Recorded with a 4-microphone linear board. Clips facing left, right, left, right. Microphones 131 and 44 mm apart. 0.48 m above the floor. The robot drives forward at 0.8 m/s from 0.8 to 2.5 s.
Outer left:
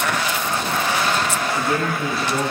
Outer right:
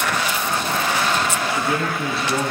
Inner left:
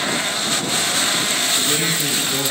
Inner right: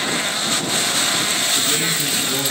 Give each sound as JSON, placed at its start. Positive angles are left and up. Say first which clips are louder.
{"t": 1.4, "sound": "a man speaking", "louder": "outer left 1 dB, even", "side_deg": -25, "distance_m": 4.5}